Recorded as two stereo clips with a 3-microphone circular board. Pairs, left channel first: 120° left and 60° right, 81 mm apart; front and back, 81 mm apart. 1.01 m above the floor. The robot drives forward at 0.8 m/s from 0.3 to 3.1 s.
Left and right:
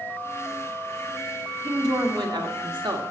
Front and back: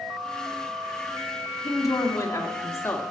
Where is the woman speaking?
35° right, 2 m; by 3.0 s 60° right, 1.4 m.